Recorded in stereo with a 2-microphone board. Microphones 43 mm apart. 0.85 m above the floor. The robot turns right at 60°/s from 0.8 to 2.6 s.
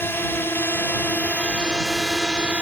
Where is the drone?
65° left (ahead or behind); by 2.6 s 35° right (ahead or behind).